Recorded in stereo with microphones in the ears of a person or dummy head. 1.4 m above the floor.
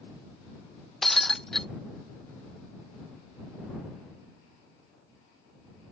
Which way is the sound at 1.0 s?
10° left (ahead or behind).